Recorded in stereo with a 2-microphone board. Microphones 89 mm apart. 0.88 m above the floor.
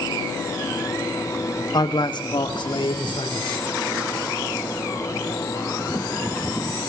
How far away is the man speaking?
About 1.2 m.